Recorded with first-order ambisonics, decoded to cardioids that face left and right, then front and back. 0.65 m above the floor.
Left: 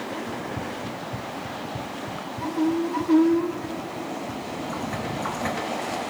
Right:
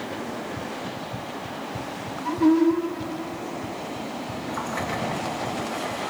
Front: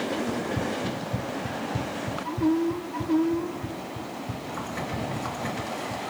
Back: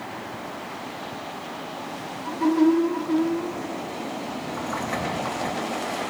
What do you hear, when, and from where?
0.3 s running footsteps: 15° left; by 6.0 s 15° right